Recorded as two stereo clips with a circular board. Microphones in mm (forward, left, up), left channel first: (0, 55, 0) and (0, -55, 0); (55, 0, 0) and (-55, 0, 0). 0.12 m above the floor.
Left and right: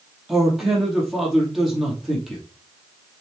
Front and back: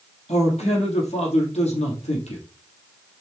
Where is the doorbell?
I don't hear a doorbell.